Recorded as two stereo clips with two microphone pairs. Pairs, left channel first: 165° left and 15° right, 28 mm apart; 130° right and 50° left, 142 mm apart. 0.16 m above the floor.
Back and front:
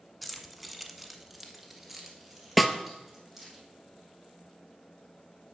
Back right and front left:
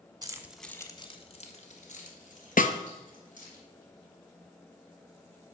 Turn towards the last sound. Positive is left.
turn(degrees=-110)